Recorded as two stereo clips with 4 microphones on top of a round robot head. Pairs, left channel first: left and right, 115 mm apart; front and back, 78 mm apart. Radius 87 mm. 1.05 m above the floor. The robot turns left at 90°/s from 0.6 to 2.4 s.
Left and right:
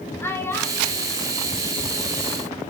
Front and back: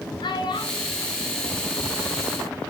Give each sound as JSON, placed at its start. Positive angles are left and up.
{"t": 0.2, "sound": "a child speaking", "azimuth_deg": 20, "distance_m": 3.0}